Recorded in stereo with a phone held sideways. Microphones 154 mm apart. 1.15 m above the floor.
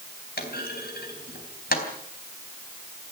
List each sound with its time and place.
0.4 s a clunk: 80° left, 4 m